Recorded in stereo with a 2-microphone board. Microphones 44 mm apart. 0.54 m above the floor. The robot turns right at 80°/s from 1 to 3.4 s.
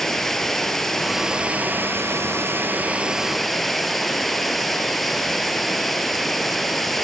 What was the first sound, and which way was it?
Running water, 170° left.